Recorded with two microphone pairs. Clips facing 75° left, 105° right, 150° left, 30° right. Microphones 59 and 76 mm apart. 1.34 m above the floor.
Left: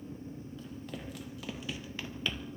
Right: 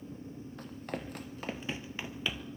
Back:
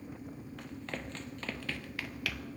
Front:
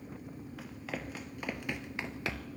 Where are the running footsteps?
115° right, 2.5 m; by 2.5 s 15° right, 1.5 m.